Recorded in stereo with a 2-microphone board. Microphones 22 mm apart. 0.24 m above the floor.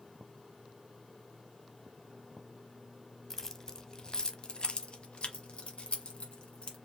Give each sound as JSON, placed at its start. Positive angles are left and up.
{"t": 3.3, "sound": "keys jangling", "side_deg": 15, "distance_m": 0.9}